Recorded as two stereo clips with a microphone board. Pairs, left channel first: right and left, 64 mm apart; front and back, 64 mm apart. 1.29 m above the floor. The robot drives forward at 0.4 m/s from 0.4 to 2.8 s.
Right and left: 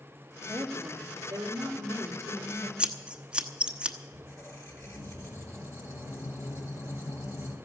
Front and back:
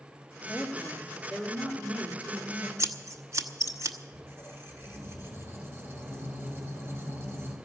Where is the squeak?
125° right, 3 m.